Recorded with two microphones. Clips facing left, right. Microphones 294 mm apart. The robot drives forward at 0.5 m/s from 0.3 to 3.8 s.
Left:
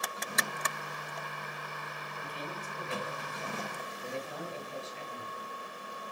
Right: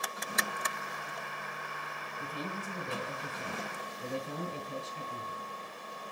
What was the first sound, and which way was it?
A man speaking, 45° right (ahead or behind).